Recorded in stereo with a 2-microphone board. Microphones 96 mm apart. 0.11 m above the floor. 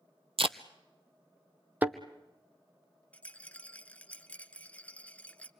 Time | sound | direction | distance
0.4 | tape being pulled | 75° right (ahead or behind) | 0.6 m
1.8 | a thud | 15° right (ahead or behind) | 1.0 m
3.1 | a rattle | 15° left (ahead or behind) | 0.6 m